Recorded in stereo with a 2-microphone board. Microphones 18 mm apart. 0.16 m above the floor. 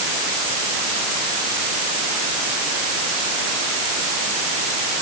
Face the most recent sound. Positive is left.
No sound to turn to.